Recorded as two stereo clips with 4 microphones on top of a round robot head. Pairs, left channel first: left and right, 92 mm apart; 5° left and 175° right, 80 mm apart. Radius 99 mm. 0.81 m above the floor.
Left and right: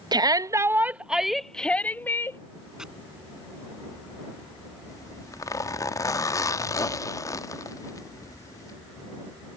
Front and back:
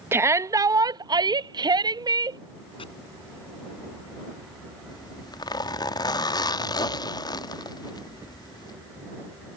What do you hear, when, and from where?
0.1 s a shout: 120° right; by 2.4 s 155° left
2.8 s chopping: 5° right
4.9 s a zipper: 35° left